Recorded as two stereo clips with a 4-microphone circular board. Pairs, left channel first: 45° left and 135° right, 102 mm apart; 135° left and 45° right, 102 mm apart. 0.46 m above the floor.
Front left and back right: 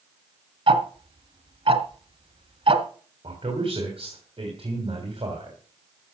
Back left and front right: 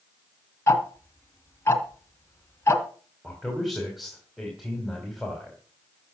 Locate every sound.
0.7 s ticking: 160° right, 1.6 m
3.2 s a man speaking: 135° right, 3 m